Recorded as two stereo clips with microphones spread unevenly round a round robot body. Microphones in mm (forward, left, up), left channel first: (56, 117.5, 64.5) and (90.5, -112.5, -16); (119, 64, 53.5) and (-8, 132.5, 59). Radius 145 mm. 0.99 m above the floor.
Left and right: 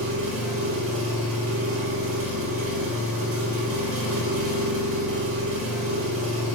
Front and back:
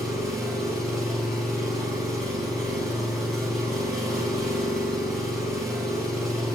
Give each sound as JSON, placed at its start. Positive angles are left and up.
{"t": 0.0, "sound": "an engine running", "azimuth_deg": -115, "distance_m": 4.0}